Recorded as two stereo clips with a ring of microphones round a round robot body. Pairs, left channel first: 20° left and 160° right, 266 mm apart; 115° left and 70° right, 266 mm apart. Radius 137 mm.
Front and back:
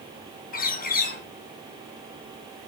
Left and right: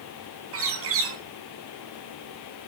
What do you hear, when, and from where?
0.5 s a bird: 35° right, 3 m